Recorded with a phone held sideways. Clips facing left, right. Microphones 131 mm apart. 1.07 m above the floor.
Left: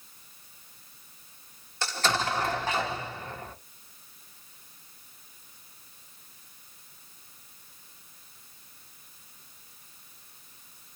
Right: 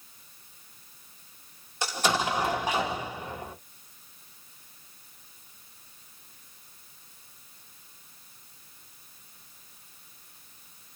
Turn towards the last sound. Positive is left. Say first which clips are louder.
# right 1 dB
turn(degrees=-15)  # may be behind; listen again after turning